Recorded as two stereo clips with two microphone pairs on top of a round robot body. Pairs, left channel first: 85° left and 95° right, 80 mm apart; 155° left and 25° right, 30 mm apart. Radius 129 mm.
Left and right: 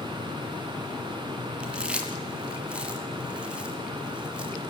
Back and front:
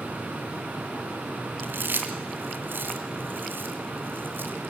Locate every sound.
1.6 s chewing: 20° right, 2 m